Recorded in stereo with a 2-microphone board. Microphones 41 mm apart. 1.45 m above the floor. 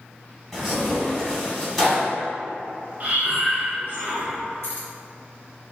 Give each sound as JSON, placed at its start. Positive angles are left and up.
{"t": 0.5, "sound": "tearing paper", "side_deg": 0, "distance_m": 1.4}
{"t": 3.0, "sound": "breathing", "side_deg": -35, "distance_m": 0.6}
{"t": 4.6, "sound": "keys jangling", "side_deg": -65, "distance_m": 1.1}